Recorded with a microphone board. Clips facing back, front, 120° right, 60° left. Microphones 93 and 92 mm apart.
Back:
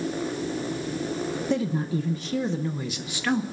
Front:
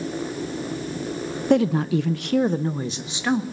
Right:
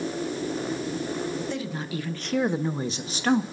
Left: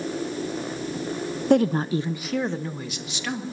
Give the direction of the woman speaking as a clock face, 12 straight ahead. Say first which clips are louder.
Front 9 dB, left 12 dB; 11 o'clock.